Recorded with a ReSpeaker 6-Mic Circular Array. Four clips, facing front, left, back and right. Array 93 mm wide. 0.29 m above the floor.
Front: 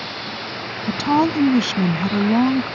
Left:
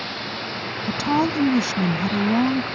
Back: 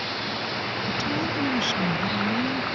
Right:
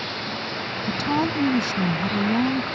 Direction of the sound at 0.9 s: 15° left.